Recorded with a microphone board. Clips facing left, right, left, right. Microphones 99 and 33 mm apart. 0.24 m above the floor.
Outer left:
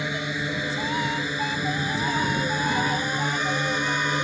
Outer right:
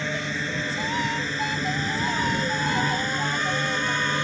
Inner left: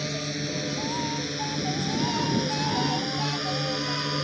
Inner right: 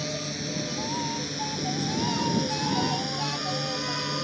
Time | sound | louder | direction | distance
0.0 | a drone | even, inner left 2 dB | 10° left (ahead or behind) | ?